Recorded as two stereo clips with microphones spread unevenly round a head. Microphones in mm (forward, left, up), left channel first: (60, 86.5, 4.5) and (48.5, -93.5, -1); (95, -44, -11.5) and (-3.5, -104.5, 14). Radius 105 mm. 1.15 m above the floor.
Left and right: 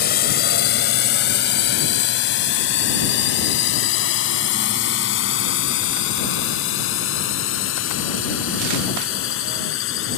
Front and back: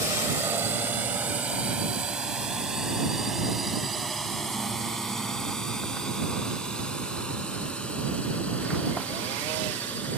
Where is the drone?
135° left; by 10.2 s 115° left.